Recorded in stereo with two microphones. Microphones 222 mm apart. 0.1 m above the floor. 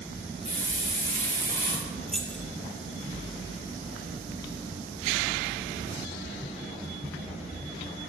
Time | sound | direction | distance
0.5 | a hiss | 30° left (ahead or behind) | 7 m
2.1 | keys jangling | centre (ahead or behind) | 1.8 m